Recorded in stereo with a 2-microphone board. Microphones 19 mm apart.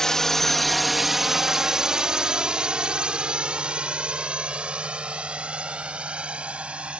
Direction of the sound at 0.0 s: 25° left (ahead or behind).